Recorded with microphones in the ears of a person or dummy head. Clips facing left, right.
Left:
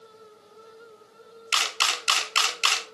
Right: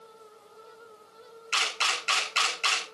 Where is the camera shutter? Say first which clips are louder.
Left 2 dB; 55° left (ahead or behind), 1.9 m.